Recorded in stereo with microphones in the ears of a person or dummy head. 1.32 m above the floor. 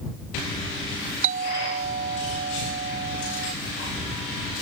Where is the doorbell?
55° right (ahead or behind).